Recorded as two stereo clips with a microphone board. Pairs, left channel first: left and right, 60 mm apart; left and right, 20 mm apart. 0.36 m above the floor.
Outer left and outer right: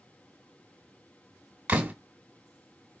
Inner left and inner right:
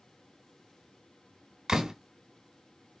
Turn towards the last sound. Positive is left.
turn(degrees=-25)  # may be behind; listen again after turning